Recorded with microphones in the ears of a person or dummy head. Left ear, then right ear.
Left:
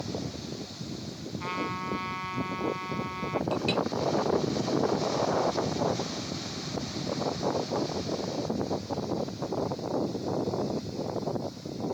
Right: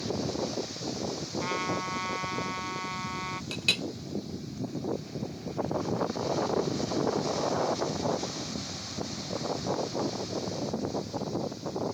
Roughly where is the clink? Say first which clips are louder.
Right 2 dB; centre.